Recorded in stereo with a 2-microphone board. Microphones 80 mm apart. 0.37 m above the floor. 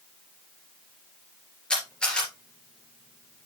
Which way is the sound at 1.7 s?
10° left (ahead or behind).